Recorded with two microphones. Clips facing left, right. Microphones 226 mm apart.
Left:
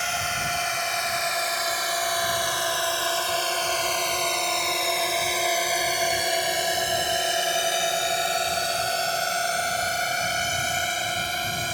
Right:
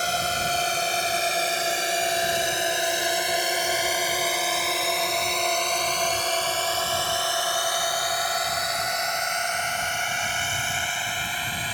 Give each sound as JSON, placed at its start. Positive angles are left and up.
{"t": 0.0, "sound": "a drone", "side_deg": -40}